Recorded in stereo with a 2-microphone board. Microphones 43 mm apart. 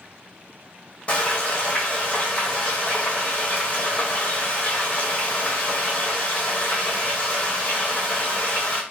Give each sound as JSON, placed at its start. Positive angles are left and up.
{"t": 1.1, "sound": "frying", "side_deg": 35, "distance_m": 1.6}